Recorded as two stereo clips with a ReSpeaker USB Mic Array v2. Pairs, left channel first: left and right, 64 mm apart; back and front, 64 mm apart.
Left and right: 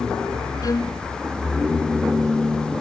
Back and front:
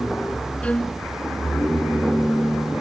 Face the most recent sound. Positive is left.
turn(degrees=110)